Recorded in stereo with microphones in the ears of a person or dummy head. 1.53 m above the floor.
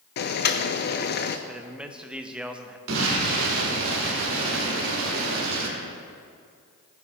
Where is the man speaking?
5° right (ahead or behind), 0.6 m.